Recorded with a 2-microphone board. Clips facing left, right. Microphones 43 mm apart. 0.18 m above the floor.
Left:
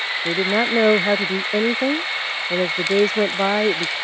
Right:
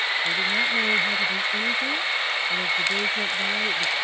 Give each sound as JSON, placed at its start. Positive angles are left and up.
{"t": 0.2, "sound": "a woman speaking", "side_deg": 75}